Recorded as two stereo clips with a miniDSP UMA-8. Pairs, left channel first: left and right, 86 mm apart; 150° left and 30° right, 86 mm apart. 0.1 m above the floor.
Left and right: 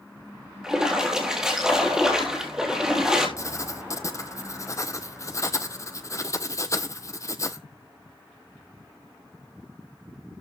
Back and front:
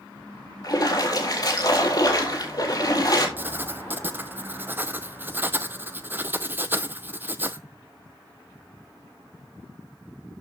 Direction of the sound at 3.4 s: 40° left.